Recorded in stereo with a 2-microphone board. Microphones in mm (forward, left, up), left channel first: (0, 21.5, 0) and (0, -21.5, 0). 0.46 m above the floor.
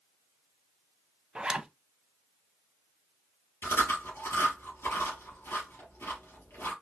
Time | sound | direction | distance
1.4 | a zipper | 20° right (ahead or behind) | 0.6 m
3.6 | chewing | 85° left | 3 m